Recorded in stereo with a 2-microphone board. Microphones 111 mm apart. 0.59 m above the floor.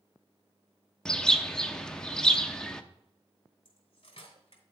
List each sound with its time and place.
1.1 s a bird: 5° left (ahead or behind), 0.6 m
3.6 s cutlery clinking: 50° left (ahead or behind), 2.5 m